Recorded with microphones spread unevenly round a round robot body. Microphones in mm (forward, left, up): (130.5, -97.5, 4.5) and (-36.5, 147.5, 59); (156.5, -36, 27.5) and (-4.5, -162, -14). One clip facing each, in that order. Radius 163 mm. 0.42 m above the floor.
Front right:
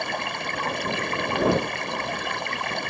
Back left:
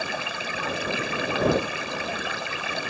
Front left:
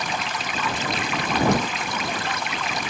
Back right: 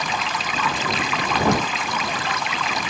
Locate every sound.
0.0 s running water: 150° right